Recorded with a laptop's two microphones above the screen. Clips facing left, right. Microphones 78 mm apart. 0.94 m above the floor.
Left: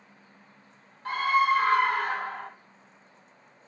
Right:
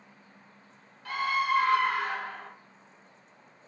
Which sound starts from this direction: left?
A scream, at 1.1 s.